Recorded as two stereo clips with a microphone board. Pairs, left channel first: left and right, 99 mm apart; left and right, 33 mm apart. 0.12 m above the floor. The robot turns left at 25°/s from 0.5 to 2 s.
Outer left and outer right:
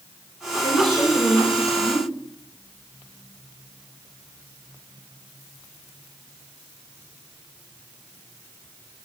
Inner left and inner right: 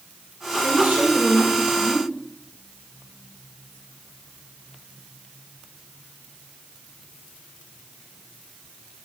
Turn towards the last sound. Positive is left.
turn(degrees=-140)